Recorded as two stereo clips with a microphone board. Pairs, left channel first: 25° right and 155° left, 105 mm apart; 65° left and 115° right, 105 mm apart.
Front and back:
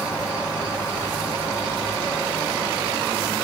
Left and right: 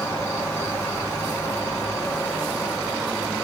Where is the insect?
20° left, 1.8 m.